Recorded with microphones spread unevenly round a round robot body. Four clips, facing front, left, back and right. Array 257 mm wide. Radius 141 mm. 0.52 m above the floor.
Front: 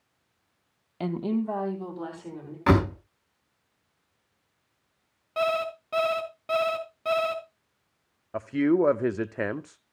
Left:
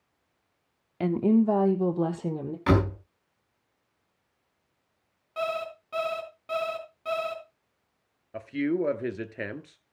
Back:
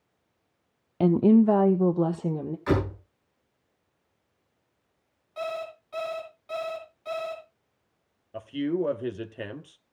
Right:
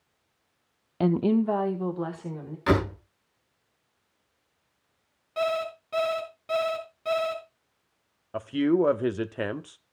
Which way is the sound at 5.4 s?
5° right.